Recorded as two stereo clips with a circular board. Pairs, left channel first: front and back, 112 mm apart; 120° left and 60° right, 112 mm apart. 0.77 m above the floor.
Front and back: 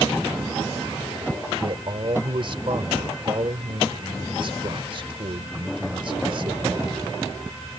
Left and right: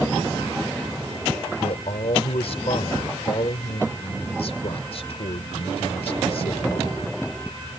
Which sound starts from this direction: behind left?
A man speaking, at 1.6 s.